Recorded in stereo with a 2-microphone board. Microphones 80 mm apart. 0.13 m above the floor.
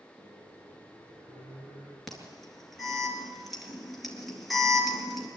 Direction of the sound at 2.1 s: Centre (ahead or behind).